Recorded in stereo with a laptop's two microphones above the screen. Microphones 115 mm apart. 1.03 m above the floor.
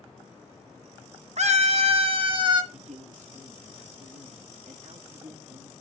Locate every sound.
1.4 s a scream: 65° right (ahead or behind), 0.9 m; by 2.6 s 35° right (ahead or behind), 1.2 m
2.7 s a man speaking: 80° right, 1.6 m